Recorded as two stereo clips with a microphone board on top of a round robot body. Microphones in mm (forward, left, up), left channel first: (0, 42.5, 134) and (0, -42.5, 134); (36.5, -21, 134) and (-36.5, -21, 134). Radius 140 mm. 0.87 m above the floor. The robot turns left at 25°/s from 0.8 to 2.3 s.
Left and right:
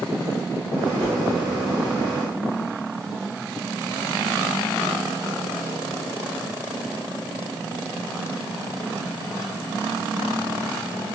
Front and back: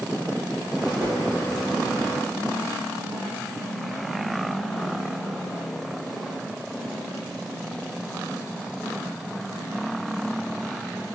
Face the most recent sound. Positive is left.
turn(degrees=-160)